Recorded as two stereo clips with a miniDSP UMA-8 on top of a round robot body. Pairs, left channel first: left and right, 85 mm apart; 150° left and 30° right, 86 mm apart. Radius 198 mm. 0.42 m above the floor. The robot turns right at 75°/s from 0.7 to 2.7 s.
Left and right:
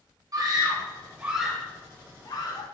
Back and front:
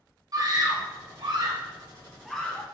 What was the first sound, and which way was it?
A scream, 55° right.